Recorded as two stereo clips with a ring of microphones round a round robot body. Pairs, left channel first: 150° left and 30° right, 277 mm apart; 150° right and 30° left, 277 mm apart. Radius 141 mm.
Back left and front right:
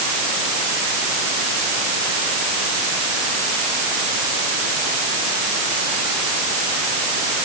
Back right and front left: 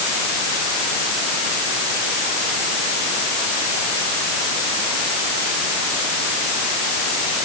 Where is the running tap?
No running tap in this recording.